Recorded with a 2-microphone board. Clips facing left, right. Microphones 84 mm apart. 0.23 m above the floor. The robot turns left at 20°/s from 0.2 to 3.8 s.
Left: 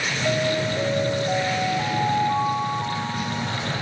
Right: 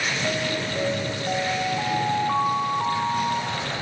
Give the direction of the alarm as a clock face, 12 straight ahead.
1 o'clock.